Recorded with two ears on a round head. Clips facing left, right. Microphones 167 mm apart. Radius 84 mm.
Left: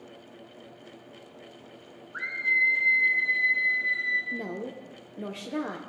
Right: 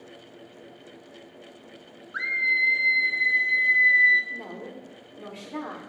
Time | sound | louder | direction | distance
2.1 | a scream | right 2 dB | 85° right | 1.1 m
4.3 | a woman speaking | left 4 dB | 35° left (ahead or behind) | 0.6 m